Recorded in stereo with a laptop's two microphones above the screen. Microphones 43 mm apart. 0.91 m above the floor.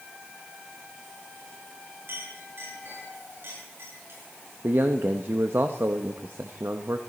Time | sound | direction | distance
2.1 | a clink | 65° right (ahead or behind) | 8.5 m
4.6 | a man speaking | 60° right (ahead or behind) | 0.8 m